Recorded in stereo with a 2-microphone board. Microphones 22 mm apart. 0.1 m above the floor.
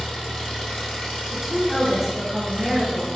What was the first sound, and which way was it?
An engine running, 55° left (ahead or behind).